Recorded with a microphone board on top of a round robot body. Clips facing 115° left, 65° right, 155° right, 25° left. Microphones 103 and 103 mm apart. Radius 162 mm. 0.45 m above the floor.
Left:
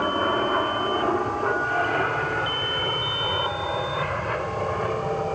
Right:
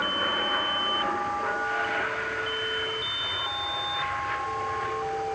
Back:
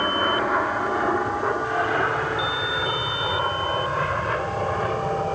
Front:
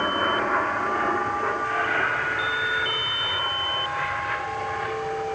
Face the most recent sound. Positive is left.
turn(degrees=150)